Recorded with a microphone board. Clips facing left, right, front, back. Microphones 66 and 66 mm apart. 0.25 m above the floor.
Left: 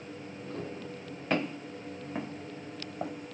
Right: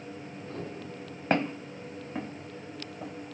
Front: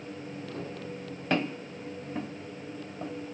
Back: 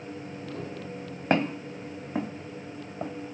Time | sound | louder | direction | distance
1.3 | footsteps | right 3 dB, back 4 dB | 140° right | 1.0 m